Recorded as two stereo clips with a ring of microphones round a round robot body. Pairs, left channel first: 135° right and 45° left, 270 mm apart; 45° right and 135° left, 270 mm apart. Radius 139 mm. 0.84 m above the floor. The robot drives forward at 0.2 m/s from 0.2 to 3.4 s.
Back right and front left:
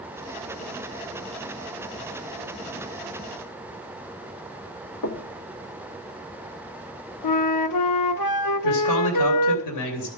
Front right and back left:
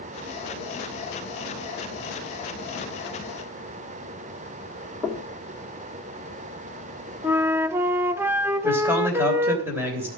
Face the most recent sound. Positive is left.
turn(degrees=-145)